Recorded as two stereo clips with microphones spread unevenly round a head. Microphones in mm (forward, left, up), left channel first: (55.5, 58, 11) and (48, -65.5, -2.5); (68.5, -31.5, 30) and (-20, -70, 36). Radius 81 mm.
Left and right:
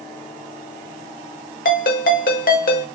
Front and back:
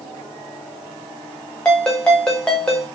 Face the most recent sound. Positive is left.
turn(degrees=110)